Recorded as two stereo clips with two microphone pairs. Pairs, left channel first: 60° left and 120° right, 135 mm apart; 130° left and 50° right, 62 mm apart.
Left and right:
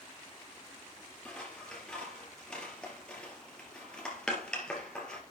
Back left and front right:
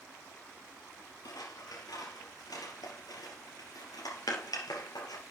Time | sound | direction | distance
1.2 | scissors | 145° left | 3.5 m